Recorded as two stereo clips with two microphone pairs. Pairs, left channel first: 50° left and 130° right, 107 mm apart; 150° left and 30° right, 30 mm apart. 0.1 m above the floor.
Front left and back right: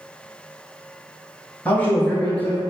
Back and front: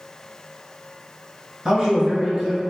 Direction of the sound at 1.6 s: 10° right.